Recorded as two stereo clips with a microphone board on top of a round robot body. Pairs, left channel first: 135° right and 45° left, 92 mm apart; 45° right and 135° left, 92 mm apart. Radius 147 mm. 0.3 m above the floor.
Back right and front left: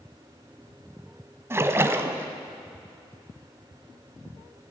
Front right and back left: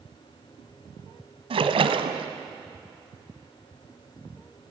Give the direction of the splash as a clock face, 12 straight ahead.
8 o'clock.